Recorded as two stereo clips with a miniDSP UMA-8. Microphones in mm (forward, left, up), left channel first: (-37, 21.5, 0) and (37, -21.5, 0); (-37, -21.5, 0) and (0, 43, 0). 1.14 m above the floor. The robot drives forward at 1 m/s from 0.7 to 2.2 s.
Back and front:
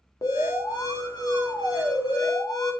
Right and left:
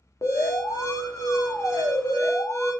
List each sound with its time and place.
0.2 s an alarm: 165° right, 2 m; by 2.7 s 170° right, 3.5 m